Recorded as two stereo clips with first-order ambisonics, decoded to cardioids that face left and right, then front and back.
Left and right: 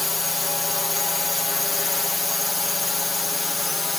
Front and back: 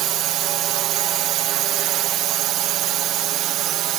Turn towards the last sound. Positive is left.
turn(degrees=165)